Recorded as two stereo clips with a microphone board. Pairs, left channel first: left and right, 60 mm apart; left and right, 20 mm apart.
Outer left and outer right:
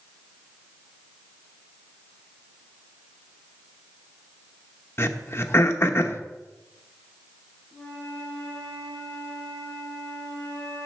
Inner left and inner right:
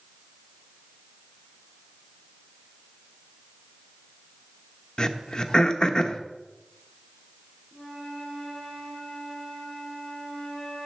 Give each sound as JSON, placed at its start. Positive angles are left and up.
{"t": 5.0, "sound": "throat clearing", "side_deg": 45, "distance_m": 0.9}
{"t": 7.7, "sound": "a flute", "side_deg": 25, "distance_m": 4.5}